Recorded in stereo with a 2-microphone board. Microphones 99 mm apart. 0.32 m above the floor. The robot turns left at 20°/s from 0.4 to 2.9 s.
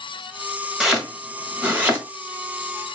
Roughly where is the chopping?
Centre.